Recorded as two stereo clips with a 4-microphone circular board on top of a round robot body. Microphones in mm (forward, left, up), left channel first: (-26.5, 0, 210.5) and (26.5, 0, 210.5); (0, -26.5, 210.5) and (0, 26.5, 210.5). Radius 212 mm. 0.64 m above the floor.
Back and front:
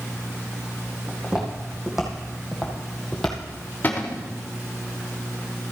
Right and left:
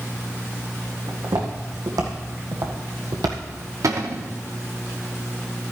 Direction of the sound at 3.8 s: 115° left.